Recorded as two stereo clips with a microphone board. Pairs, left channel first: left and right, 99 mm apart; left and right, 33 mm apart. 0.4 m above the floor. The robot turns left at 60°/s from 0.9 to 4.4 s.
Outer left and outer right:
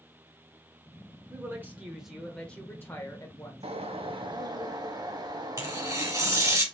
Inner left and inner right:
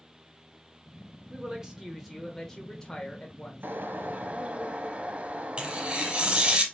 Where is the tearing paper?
30° right (ahead or behind), 2 m.